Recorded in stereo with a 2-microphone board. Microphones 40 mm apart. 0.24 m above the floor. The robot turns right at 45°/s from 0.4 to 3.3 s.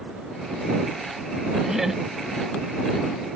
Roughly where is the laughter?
Centre.